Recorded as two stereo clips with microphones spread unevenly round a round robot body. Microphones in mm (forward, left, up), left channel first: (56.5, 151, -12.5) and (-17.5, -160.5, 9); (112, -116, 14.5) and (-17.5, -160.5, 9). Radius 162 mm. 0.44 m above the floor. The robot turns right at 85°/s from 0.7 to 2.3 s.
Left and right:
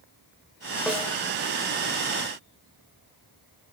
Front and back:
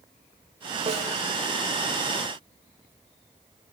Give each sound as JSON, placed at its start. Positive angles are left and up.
{"t": 0.9, "sound": "a snare drum", "azimuth_deg": 165, "distance_m": 1.4}